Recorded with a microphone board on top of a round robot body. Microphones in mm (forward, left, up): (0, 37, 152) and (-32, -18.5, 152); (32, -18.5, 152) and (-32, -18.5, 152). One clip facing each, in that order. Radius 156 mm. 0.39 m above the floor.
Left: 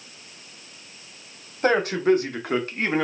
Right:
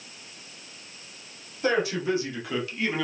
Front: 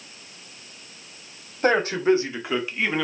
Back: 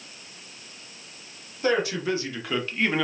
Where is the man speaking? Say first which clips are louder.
Left 5 dB, front 5 dB; 30° left, 1.4 m; by 3.0 s 90° left, 1.3 m.